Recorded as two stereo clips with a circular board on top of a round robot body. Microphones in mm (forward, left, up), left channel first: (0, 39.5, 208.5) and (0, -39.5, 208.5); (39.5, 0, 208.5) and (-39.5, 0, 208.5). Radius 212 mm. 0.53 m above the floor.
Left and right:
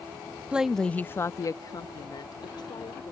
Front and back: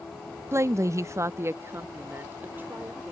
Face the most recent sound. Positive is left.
turn(degrees=110)